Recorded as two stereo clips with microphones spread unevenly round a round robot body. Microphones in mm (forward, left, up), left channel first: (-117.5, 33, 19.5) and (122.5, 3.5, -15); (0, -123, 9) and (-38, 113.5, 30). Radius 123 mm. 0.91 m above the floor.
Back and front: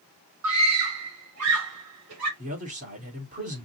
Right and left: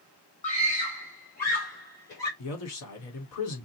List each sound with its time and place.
0.4 s a scream: 20° right, 2 m; by 2.3 s 35° right, 3 m
2.4 s a man speaking: 65° right, 2.5 m